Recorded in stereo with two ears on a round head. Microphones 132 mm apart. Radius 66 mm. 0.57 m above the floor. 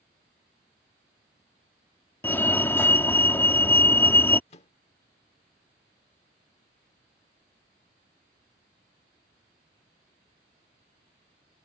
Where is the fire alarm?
15° left (ahead or behind).